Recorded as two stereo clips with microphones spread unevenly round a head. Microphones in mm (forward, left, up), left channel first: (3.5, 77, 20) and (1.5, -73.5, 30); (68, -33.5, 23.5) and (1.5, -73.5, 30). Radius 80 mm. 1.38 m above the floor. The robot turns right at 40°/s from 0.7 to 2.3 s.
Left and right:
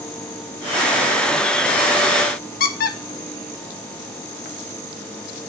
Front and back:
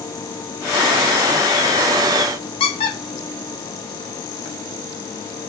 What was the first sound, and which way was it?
A squeak, 60° left.